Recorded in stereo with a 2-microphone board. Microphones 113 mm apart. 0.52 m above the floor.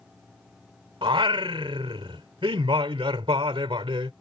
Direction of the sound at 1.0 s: 50° right (ahead or behind).